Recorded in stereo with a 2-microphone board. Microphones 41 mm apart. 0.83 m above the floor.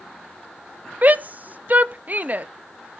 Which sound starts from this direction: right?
A shout, at 1.0 s.